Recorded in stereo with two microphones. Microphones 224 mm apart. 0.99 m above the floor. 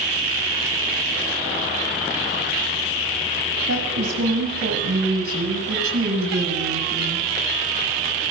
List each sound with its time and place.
3.7 s a woman speaking: 85° right, 7 m; by 7.3 s 60° right (ahead or behind), 8.5 m